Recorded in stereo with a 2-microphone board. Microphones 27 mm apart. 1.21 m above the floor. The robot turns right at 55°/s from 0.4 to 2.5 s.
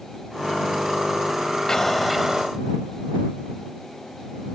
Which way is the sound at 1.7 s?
160° left.